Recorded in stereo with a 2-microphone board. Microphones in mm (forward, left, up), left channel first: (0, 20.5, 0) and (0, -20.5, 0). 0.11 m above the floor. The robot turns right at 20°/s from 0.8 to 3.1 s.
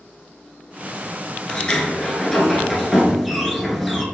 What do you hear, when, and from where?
1.5 s a sliding door: 145° left, 0.7 m; by 4.0 s straight behind, 0.7 m